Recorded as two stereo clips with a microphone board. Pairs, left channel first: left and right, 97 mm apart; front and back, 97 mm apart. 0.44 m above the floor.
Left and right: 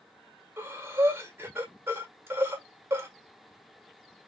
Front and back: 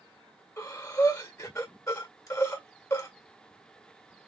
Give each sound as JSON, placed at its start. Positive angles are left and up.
{"t": 0.6, "sound": "breathing", "azimuth_deg": -35, "distance_m": 1.7}